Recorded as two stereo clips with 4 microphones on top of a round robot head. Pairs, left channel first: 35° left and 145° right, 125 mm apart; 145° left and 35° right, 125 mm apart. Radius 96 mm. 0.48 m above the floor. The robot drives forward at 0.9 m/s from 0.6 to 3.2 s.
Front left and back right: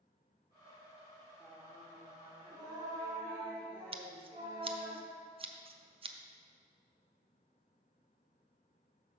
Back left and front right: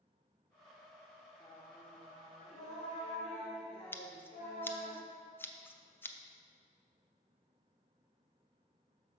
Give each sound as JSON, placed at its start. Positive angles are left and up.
{"t": 1.4, "sound": "singing", "azimuth_deg": 150, "distance_m": 1.7}
{"t": 3.9, "sound": "scissors", "azimuth_deg": -150, "distance_m": 0.7}